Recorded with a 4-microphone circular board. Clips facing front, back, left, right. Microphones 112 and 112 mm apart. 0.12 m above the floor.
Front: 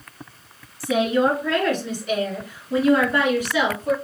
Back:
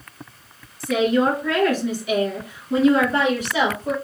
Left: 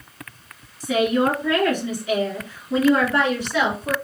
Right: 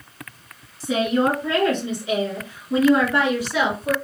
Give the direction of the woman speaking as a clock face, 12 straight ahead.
2 o'clock.